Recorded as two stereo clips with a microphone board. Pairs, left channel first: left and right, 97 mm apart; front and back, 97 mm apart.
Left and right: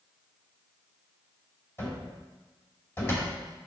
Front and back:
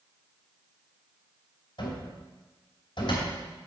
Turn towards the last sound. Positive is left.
turn(degrees=25)